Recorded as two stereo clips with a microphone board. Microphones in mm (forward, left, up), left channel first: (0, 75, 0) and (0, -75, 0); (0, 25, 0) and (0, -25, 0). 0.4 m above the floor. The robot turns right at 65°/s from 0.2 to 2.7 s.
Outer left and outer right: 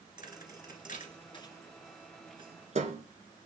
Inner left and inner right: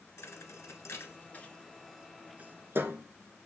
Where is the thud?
70° left (ahead or behind), 1.2 m; by 3.0 s 50° right (ahead or behind), 1.2 m.